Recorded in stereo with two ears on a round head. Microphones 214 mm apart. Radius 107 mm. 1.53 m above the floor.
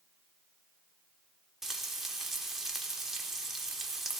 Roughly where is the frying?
Centre.